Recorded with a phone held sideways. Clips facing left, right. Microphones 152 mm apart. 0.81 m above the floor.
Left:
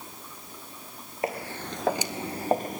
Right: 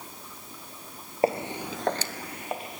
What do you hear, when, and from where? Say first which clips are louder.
1.2 s footsteps: right 6 dB; 30° right (ahead or behind), 1.0 m; by 2.8 s 50° left (ahead or behind), 1.2 m